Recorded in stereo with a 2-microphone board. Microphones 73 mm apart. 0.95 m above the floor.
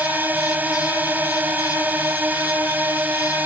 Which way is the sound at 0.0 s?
25° right (ahead or behind).